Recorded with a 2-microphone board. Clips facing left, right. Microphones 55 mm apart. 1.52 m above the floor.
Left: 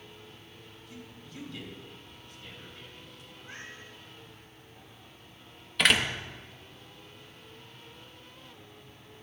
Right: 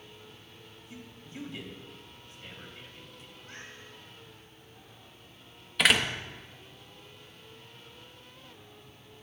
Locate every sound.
0.9 s a man speaking: 30° right (ahead or behind), 3.5 m
3.4 s a cat meowing: 25° left (ahead or behind), 5 m
5.8 s a door slam: centre (ahead or behind), 1.1 m